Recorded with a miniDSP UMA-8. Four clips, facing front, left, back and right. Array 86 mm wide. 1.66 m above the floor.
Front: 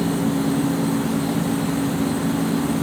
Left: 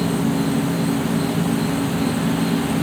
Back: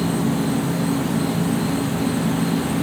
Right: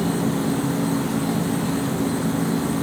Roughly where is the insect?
Left.